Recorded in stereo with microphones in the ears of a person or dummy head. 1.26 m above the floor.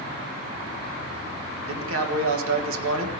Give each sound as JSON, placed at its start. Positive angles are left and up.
{"t": 1.7, "sound": "a man speaking", "side_deg": -80, "distance_m": 1.6}